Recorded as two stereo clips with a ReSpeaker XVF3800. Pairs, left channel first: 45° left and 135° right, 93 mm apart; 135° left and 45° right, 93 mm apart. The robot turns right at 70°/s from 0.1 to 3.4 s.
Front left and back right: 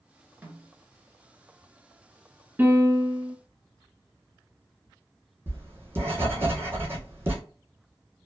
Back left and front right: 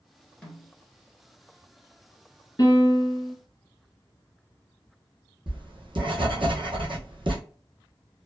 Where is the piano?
165° left, 1.1 m; by 3.4 s 140° right, 1.1 m.